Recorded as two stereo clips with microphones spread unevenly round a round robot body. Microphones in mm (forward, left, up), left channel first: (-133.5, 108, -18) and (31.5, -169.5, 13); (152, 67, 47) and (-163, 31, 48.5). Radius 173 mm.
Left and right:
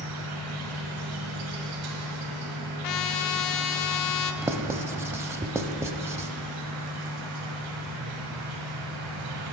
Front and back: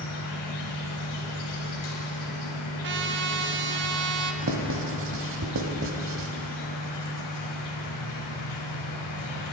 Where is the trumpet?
135° left, 0.6 m.